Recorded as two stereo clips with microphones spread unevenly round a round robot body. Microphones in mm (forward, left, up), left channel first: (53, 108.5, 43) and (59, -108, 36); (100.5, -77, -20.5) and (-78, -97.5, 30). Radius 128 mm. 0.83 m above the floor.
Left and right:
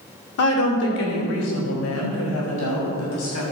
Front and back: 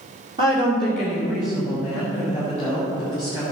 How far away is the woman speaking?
About 2 m.